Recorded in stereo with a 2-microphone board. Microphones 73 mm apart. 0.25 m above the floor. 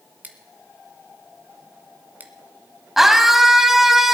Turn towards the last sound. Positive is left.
turn(degrees=-5)  # may be behind; listen again after turning